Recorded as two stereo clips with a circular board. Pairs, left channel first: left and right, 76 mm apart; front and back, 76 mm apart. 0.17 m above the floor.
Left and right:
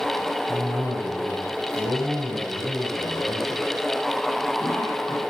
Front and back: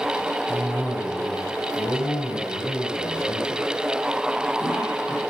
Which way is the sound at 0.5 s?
50° right.